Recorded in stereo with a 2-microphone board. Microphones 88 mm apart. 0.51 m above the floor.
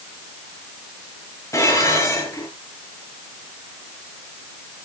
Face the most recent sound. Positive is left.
turn(degrees=35)  # may be behind; listen again after turning